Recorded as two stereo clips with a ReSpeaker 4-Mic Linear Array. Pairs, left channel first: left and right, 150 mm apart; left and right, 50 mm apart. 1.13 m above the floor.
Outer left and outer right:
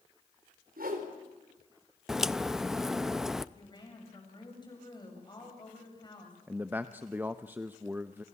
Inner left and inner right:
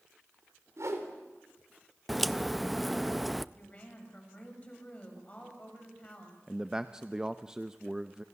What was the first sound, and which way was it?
A whoosh, 85° right.